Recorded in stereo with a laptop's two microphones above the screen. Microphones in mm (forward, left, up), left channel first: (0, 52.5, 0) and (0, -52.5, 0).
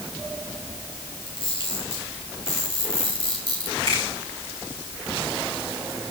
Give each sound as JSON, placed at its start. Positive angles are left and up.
{"t": 1.3, "sound": "a camera shutter", "side_deg": 50, "distance_m": 4.0}
{"t": 3.9, "sound": "a finger snap", "side_deg": -50, "distance_m": 4.5}